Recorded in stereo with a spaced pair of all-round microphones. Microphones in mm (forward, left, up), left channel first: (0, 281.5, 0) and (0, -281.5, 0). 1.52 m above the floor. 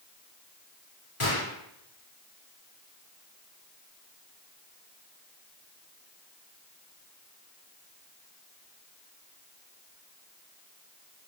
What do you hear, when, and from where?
1.2 s a gunshot: 70° left (ahead or behind), 4 m